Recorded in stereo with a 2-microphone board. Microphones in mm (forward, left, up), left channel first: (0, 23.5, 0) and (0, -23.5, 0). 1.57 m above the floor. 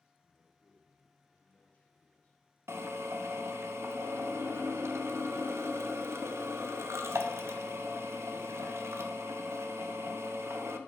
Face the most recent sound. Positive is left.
turn(degrees=-85)